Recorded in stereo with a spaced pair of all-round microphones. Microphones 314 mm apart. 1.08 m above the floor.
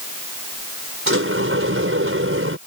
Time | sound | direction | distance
1.1 | a sliding door | 40° right (ahead or behind) | ?